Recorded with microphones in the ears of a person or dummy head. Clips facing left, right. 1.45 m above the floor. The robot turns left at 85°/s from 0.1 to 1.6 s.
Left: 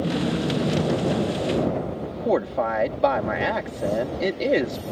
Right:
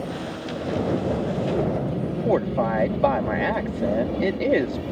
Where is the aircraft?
35° left (ahead or behind); by 4.9 s 65° right (ahead or behind).